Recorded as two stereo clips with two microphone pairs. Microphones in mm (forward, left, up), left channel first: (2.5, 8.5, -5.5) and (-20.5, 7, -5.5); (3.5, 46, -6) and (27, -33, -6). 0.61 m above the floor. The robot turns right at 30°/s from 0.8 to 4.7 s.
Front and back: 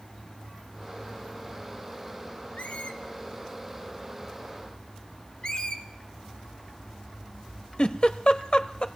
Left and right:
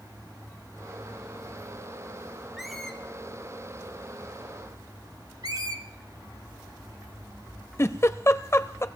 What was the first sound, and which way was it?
A squeak, 15° left.